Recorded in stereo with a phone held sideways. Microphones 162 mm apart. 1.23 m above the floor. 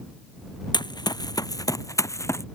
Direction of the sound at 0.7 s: 25° left (ahead or behind).